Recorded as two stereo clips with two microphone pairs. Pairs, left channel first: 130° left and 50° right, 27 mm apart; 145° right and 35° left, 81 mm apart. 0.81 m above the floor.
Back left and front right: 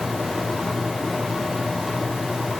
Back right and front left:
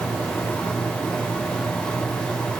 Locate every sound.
Only background noise.